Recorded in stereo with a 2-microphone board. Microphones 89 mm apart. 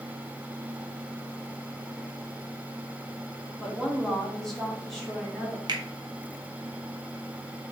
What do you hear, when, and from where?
3.6 s a woman speaking: 5° left (ahead or behind), 0.6 m; by 5.6 s centre (ahead or behind), 1.2 m
5.7 s a finger snap: 50° right (ahead or behind), 0.5 m